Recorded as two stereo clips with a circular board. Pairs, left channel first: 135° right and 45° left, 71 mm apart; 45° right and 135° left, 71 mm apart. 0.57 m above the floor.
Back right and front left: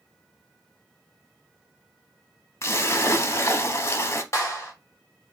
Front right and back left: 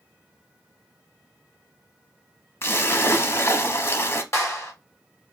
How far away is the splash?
About 0.7 m.